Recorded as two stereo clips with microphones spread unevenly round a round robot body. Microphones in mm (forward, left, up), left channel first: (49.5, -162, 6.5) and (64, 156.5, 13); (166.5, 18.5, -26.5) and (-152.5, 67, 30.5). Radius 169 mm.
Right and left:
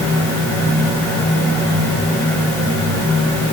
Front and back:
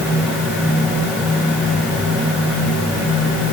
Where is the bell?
I don't hear a bell.